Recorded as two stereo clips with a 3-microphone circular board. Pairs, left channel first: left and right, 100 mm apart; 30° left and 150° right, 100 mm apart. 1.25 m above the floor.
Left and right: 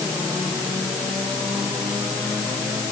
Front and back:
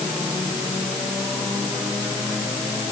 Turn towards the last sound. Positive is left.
No sound to turn to.